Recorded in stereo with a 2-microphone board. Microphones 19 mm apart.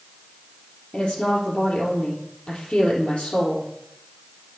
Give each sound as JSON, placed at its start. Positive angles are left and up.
{"t": 0.9, "sound": "a woman speaking", "side_deg": 55, "distance_m": 3.0}